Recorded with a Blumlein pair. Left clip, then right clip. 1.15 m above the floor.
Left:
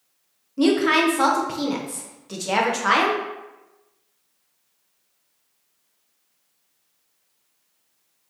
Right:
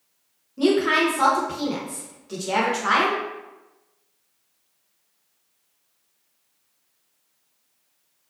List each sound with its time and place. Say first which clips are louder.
0.6 s a woman speaking: left 1 dB; 10° left, 0.6 m